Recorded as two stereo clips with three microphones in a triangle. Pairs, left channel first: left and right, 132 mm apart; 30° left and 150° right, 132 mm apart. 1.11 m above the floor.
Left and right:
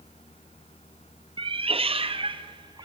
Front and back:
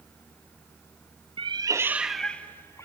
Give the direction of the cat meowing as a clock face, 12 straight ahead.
4 o'clock.